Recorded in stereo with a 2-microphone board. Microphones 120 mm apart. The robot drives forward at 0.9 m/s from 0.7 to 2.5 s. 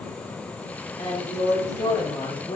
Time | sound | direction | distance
1.0 | a woman speaking | 55° left (ahead or behind) | 3 m